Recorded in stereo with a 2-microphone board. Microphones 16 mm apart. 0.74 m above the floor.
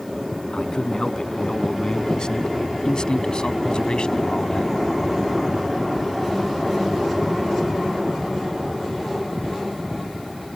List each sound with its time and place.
0.5 s a man speaking: 40° left (ahead or behind); by 4.7 s 50° left (ahead or behind)